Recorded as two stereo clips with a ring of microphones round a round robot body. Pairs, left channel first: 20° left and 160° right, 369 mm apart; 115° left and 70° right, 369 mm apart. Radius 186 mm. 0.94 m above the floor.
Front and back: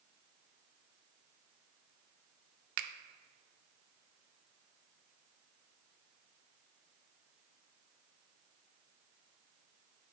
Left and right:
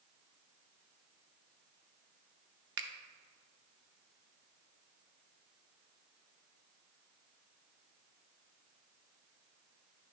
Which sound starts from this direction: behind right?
A finger snap, at 2.8 s.